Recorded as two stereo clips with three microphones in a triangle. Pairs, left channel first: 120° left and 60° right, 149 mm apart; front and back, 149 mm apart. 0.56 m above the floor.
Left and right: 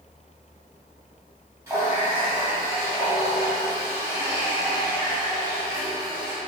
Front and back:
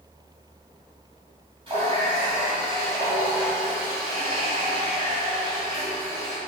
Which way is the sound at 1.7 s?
130° right.